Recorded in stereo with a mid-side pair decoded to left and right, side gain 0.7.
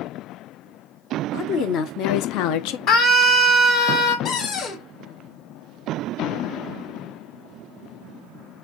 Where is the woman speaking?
55° left, 1.3 m; by 2.8 s 70° left, 0.6 m.